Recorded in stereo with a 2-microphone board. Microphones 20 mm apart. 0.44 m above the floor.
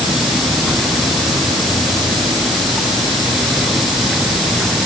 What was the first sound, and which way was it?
Only background noise.